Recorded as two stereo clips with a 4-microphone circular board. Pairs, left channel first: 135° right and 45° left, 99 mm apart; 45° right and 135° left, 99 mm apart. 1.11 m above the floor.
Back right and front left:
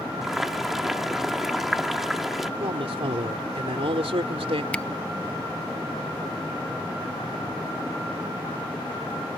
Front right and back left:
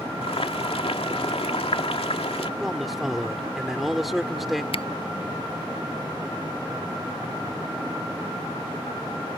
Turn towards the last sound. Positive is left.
turn(degrees=-60)